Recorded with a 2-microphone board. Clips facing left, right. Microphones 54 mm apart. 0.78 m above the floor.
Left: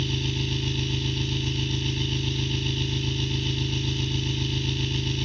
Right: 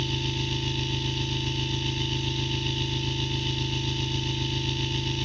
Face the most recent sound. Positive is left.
turn(degrees=0)  # may be behind; listen again after turning